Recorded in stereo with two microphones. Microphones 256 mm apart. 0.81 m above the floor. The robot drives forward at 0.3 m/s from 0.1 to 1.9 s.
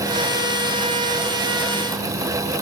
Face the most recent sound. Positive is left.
No sound to turn to.